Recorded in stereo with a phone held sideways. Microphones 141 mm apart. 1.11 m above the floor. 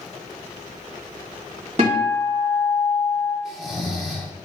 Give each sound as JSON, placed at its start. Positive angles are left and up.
{"t": 1.8, "sound": "a guitar", "side_deg": -45, "distance_m": 2.0}
{"t": 3.5, "sound": "snoring", "side_deg": 0, "distance_m": 0.8}